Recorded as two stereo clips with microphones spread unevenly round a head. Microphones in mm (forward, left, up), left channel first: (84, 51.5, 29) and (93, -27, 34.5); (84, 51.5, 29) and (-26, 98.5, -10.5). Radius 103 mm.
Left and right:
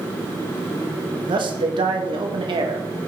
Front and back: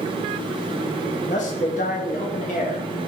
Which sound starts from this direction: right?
A man speaking, at 1.3 s.